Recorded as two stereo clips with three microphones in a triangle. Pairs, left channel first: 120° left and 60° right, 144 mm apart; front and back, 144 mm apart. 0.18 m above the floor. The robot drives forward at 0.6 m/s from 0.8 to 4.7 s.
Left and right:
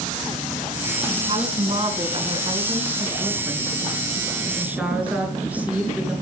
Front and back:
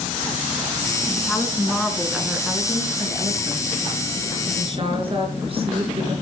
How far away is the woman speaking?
About 2 m.